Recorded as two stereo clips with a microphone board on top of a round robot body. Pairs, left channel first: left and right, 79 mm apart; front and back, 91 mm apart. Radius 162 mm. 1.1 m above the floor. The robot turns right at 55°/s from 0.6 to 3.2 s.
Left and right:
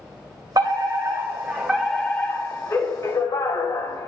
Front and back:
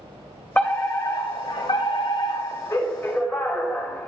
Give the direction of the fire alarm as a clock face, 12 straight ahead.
2 o'clock.